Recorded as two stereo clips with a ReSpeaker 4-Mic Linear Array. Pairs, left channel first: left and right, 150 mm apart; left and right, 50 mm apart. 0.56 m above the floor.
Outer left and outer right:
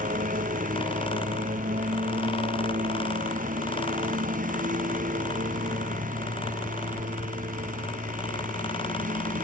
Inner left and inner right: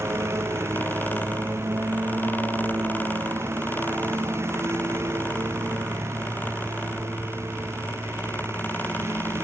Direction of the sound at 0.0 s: 60° right (ahead or behind).